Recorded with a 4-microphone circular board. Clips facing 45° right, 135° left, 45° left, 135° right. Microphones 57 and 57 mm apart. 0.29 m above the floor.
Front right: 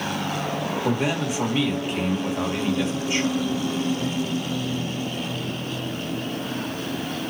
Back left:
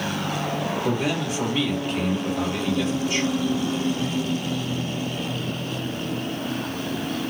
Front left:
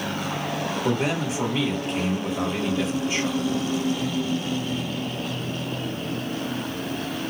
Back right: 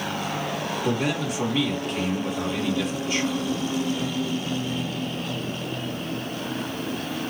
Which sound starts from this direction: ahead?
A man speaking, at 0.8 s.